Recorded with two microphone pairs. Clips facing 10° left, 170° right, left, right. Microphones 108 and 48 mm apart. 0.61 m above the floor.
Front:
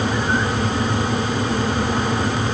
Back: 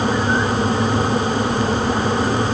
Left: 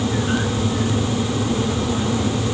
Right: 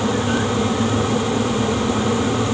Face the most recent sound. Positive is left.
No sound to turn to.